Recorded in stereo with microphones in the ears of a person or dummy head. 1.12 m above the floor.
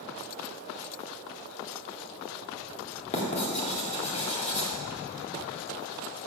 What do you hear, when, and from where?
3.1 s writing: 30° left (ahead or behind), 2 m